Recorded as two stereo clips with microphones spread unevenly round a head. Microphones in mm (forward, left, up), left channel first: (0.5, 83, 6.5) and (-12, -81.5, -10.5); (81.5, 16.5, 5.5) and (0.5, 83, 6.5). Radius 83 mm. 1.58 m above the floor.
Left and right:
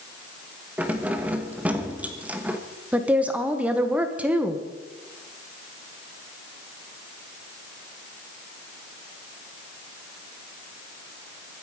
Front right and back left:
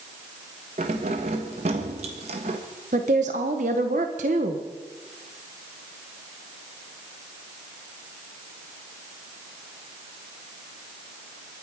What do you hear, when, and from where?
0.8 s keys jangling: straight behind, 1.3 m
2.9 s a woman speaking: 175° right, 1.6 m